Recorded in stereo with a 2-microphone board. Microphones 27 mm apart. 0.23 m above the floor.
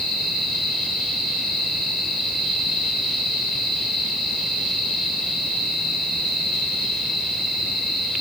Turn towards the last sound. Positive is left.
No sound to turn to.